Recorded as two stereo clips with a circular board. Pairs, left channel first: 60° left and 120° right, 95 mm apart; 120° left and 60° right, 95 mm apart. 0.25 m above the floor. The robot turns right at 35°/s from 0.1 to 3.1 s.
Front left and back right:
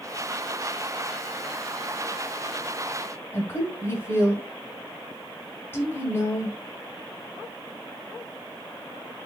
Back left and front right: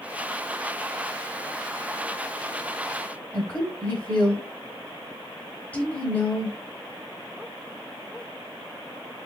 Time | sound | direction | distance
3.3 | a woman speaking | 70° left | 1.4 m